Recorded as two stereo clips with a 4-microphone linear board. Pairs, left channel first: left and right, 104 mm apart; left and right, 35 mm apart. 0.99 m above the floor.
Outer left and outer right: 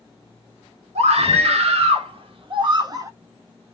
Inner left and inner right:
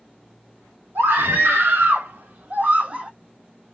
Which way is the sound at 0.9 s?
80° right.